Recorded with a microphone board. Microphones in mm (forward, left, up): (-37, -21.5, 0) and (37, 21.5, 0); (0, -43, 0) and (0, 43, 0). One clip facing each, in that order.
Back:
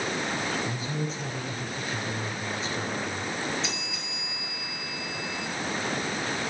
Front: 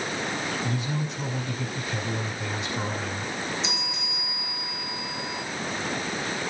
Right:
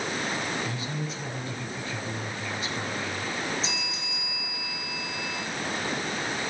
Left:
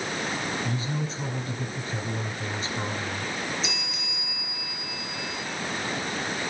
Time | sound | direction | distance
0.6 | a man speaking | 35° left | 6 m
3.6 | a bell | 40° right | 4 m